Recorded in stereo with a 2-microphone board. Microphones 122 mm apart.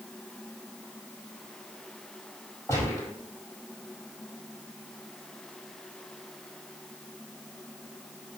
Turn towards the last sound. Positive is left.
turn(degrees=20)  # may be behind; listen again after turning